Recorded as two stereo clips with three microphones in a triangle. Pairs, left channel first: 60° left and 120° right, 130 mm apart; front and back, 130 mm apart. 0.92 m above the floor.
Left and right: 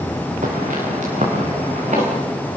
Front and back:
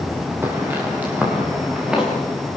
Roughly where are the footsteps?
Right.